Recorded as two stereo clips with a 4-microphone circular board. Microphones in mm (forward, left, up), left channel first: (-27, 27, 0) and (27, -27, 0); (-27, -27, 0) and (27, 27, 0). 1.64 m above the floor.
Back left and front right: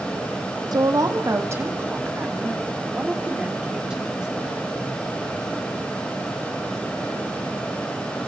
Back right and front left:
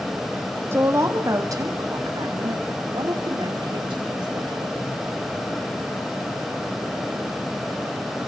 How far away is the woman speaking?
About 2.5 m.